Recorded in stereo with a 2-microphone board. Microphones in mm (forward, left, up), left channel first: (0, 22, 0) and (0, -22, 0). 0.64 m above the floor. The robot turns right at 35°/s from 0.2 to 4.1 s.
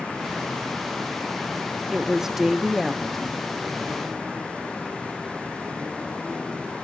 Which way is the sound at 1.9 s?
35° right.